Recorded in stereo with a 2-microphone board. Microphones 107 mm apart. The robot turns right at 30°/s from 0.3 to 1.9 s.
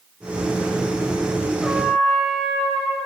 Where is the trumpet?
10° left (ahead or behind), 6 m; by 3.1 s centre (ahead or behind), 6 m.